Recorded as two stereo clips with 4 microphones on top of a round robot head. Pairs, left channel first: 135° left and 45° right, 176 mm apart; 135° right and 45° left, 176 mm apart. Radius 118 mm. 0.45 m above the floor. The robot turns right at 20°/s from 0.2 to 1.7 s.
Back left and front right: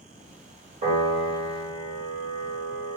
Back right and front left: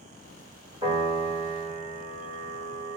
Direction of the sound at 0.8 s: 15° right.